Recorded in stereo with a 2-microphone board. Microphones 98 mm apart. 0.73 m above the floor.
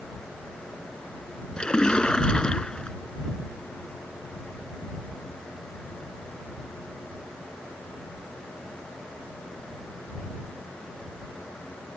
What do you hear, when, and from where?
1.6 s a splash: 10° left (ahead or behind)